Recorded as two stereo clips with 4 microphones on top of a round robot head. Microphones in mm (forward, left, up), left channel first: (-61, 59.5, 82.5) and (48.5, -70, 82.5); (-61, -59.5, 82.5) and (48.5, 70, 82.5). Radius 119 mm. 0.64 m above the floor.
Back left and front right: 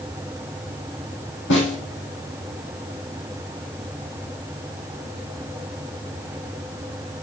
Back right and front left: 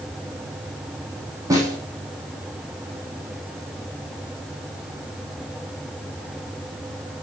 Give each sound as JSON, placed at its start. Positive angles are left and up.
{"t": 1.5, "sound": "a snare drum", "azimuth_deg": 120, "distance_m": 5.5}